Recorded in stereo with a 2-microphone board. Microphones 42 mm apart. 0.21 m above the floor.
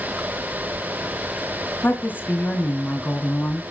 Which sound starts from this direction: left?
A woman speaking, at 1.8 s.